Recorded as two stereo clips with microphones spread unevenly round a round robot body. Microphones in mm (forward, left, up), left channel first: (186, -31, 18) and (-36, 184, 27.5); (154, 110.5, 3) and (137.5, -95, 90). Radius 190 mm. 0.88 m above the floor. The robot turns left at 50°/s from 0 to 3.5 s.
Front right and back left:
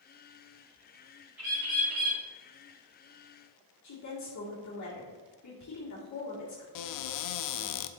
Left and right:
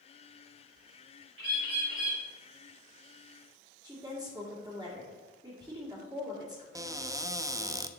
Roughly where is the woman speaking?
Ahead.